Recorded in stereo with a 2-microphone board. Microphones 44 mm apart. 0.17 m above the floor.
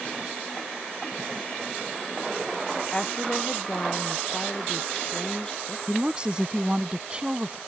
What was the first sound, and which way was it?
A woman speaking, 20° left (ahead or behind).